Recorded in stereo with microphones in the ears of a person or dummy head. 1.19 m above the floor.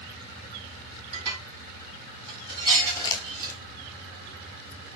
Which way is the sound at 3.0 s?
20° left (ahead or behind).